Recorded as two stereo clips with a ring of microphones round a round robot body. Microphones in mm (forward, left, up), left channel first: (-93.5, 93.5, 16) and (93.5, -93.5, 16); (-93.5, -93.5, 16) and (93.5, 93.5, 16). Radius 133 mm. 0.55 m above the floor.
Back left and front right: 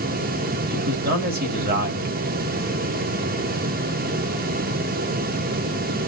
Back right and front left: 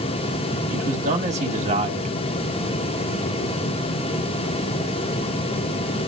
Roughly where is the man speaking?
Ahead.